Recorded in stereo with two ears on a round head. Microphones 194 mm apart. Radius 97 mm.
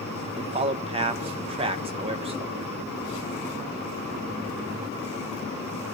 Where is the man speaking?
25° right (ahead or behind), 0.7 m.